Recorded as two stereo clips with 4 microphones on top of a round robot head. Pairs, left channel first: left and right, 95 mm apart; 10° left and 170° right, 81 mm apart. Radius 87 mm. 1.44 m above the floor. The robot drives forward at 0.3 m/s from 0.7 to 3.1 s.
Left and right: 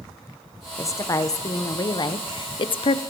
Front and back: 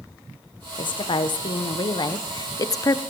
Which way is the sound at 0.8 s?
30° left.